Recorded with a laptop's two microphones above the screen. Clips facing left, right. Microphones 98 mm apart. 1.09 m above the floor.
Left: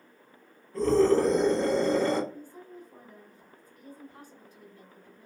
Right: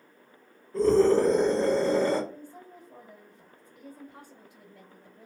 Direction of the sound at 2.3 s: 80° right.